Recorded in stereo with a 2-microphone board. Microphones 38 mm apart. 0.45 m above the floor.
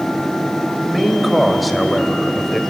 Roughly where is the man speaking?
Centre.